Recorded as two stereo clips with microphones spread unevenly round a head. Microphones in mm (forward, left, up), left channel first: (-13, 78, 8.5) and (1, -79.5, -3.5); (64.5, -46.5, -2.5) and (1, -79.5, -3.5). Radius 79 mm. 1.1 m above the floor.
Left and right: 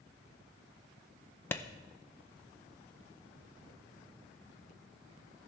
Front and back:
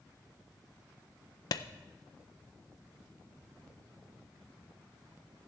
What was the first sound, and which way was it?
A clap, 15° left.